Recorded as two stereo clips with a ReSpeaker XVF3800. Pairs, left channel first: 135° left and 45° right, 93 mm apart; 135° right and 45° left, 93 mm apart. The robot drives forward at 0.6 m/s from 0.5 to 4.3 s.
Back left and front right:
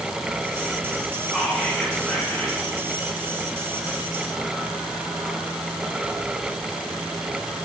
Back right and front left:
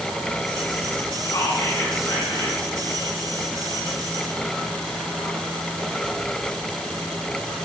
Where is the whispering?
140° right, 1.5 m; by 2.6 s 160° right, 2 m.